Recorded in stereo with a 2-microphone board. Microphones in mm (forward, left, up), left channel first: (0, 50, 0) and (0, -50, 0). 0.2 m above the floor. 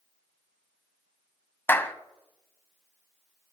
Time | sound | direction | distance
1.7 | a clap | 25° left (ahead or behind) | 0.8 m